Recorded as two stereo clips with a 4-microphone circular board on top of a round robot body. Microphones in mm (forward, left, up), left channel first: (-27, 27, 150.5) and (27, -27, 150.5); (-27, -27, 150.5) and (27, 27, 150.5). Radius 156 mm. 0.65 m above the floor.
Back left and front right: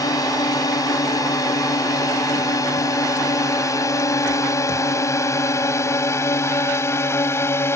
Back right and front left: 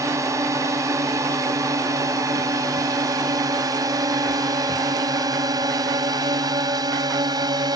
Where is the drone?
95° left; by 7.8 s 80° left.